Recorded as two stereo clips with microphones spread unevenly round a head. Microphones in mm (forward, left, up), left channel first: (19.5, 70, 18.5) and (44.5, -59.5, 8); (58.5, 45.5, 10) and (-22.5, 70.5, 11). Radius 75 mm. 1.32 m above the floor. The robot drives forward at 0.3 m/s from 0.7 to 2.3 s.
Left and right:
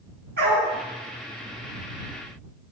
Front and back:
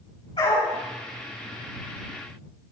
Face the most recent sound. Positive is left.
turn(degrees=-80)